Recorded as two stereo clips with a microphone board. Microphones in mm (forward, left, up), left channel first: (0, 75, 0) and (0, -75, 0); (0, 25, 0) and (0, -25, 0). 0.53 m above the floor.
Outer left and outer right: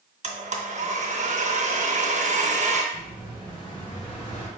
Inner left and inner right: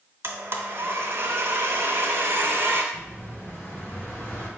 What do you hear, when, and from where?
0.2 s a blender: 50° right (ahead or behind), 0.6 m
2.9 s an explosion: 30° left (ahead or behind), 1.4 m